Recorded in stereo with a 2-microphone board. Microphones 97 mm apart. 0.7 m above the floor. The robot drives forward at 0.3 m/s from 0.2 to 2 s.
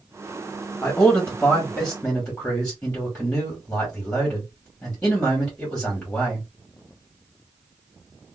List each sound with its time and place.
0.8 s a man speaking: 15° left (ahead or behind), 1.1 m; by 6.5 s 10° left (ahead or behind), 1.3 m